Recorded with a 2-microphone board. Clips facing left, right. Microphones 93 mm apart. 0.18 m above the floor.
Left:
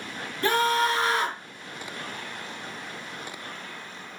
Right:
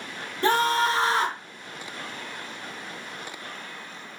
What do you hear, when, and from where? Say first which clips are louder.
0.4 s a scream: right 1 dB; 30° right (ahead or behind), 1.5 m